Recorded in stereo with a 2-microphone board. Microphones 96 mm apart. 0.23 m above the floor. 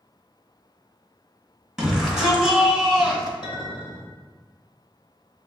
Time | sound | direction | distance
1.8 | a shout | centre (ahead or behind) | 1.4 m
3.4 | a clink | 55° left (ahead or behind) | 1.6 m